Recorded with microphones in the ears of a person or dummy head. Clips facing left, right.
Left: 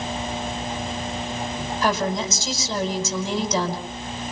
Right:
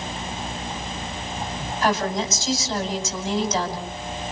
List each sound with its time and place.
1.8 s a woman speaking: 80° left, 6 m